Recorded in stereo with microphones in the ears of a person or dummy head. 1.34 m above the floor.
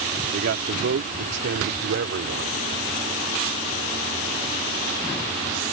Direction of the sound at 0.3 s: 65° right (ahead or behind).